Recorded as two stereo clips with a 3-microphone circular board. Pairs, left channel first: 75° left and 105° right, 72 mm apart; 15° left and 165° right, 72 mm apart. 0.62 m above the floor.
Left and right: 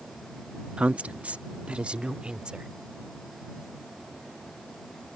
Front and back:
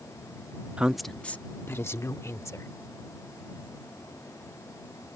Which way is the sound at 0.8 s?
140° right.